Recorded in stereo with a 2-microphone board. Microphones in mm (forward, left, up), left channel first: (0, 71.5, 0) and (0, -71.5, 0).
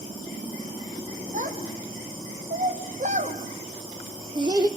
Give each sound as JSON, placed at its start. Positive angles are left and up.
{"t": 1.3, "sound": "a child speaking", "side_deg": -65, "distance_m": 3.0}